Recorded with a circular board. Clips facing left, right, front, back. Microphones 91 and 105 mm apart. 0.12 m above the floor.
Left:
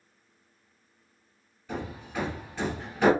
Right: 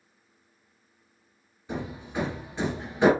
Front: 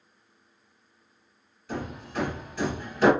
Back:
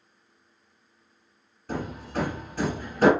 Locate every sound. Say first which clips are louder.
1.7 s hammering: right 2 dB, back 2 dB; 160° right, 1.7 m